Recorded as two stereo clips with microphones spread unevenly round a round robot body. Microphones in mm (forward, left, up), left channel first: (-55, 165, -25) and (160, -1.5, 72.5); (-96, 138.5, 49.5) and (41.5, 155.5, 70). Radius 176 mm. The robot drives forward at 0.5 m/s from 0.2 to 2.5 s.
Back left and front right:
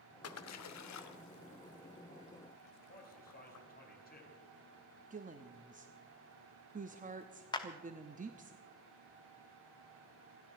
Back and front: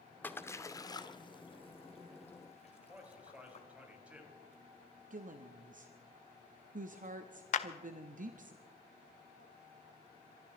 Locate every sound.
0.2 s a splash: 110° left, 1.2 m; by 3.6 s 145° left, 1.9 m
2.6 s a man speaking: 90° left, 5 m
5.1 s a woman speaking: 35° left, 0.9 m
7.5 s a clap: 150° right, 0.7 m